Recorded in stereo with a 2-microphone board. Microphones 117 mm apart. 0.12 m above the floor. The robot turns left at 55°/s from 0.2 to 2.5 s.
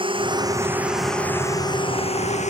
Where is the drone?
45° right (ahead or behind); by 2.5 s 75° left (ahead or behind).